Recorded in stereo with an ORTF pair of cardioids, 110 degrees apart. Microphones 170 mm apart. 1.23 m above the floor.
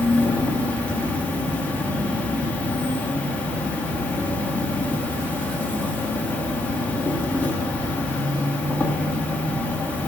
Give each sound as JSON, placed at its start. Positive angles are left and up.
{"t": 0.0, "sound": "an insect", "azimuth_deg": 10, "distance_m": 1.0}